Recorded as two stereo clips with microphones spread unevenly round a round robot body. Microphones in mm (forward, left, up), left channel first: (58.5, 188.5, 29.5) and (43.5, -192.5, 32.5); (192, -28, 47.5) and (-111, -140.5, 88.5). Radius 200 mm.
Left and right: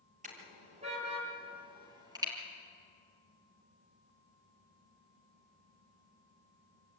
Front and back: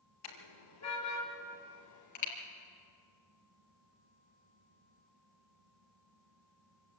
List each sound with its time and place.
0.2 s a car horn: 20° right, 5.5 m; by 2.3 s 10° right, 5 m